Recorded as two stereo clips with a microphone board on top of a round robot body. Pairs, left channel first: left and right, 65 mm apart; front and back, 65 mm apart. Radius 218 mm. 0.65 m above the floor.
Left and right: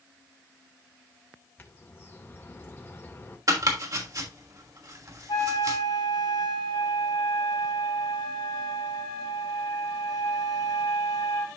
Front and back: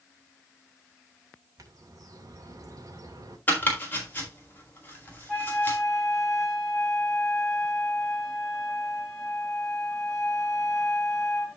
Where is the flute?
80° left, 2 m.